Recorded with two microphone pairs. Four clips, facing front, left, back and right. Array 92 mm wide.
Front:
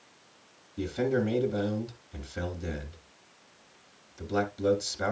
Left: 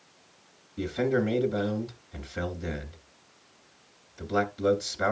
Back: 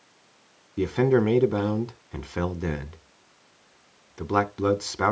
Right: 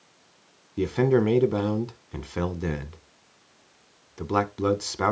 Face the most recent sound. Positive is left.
turn(degrees=-140)